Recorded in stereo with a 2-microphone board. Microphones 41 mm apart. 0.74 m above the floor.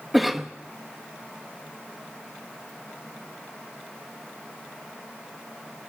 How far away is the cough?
About 0.9 m.